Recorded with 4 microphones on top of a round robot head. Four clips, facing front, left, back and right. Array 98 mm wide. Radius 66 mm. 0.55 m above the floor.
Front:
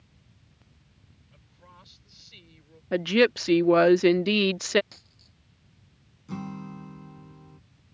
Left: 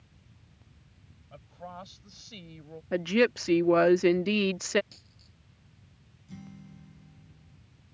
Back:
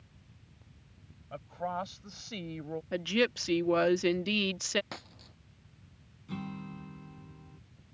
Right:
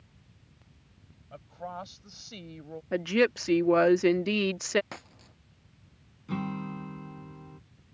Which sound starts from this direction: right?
A guitar, at 6.3 s.